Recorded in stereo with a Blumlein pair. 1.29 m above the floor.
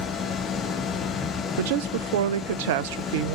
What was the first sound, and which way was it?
A machine running, 25° left.